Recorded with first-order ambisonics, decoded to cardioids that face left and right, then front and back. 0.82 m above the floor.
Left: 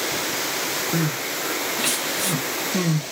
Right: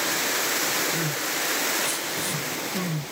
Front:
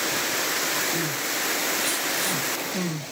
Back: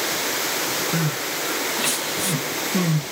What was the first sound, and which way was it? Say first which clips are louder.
Crying: left 1 dB, back 1 dB; 125° left.